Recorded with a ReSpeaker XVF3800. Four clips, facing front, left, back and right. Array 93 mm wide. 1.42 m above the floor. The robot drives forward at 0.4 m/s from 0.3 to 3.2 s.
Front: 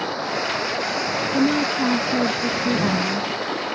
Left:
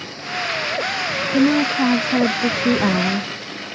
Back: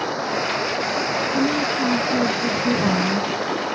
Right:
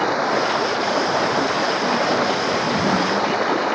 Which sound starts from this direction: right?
Running water, at 0.0 s.